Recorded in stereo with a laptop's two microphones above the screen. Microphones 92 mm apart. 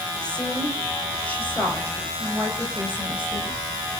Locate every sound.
0.2 s a woman speaking: 10° left (ahead or behind), 5.5 m; by 3.6 s 25° left (ahead or behind), 8.5 m